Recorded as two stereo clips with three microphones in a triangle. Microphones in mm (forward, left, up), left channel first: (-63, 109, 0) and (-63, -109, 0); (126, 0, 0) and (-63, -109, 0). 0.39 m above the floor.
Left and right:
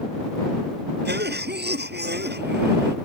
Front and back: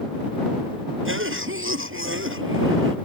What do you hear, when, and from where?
1.1 s a cough: 130° right